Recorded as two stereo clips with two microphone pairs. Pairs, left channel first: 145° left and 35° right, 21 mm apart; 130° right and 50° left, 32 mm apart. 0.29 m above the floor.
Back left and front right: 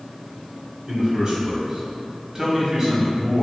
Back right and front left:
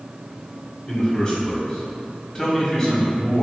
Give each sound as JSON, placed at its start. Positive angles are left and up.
{"t": 0.9, "sound": "a man speaking", "azimuth_deg": -65, "distance_m": 1.8}